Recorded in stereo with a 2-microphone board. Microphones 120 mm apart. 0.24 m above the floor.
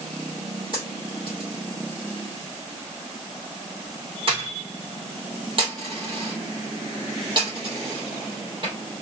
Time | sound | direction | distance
0.7 | a dropped coin | 45° right (ahead or behind) | 3.5 m